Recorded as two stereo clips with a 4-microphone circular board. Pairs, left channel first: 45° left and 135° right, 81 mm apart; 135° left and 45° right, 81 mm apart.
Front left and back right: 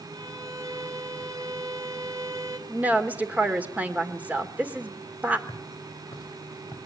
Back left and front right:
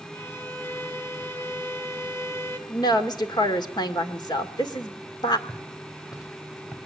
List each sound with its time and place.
0.1 s a violin: 175° right, 2.5 m
2.7 s a woman speaking: 155° left, 1.9 m
5.5 s footsteps: 85° left, 5 m; by 6.8 s 80° left, 6.5 m